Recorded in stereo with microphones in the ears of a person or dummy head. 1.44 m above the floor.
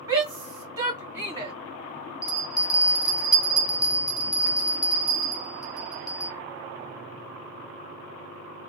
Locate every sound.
0.1 s a shout: 20° right (ahead or behind), 1.6 m
2.2 s a bell: 15° left (ahead or behind), 1.1 m